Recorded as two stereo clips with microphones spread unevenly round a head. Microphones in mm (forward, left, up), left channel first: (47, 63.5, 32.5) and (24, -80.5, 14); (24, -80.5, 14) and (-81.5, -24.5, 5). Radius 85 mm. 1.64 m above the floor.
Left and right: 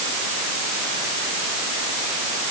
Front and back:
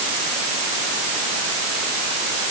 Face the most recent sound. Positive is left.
No sound to turn to.